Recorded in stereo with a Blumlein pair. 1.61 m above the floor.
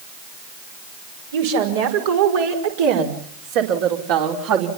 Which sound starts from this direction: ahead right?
A woman speaking, at 1.3 s.